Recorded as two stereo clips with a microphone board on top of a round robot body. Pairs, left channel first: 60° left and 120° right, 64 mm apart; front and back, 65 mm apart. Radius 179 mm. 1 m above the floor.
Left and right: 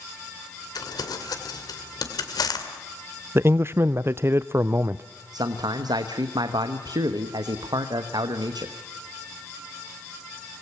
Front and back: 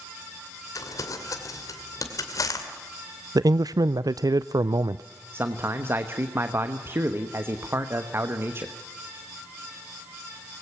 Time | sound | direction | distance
0.8 | crumpling | 40° left | 2.5 m
3.4 | a man speaking | 170° right | 0.5 m
5.3 | a man speaking | 125° right | 1.2 m